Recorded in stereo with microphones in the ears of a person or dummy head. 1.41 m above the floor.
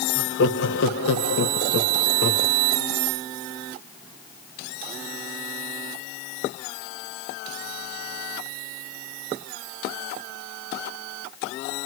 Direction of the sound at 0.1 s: 70° left (ahead or behind).